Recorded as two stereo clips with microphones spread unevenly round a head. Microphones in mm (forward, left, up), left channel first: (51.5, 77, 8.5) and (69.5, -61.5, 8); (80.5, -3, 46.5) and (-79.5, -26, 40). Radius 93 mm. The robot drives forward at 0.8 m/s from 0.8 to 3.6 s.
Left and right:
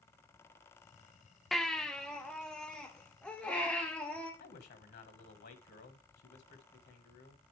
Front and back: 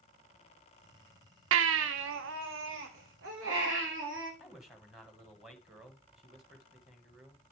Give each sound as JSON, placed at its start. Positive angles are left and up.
{"t": 1.5, "sound": "a baby crying", "azimuth_deg": -175, "distance_m": 0.5}
{"t": 4.4, "sound": "a man speaking", "azimuth_deg": 100, "distance_m": 1.5}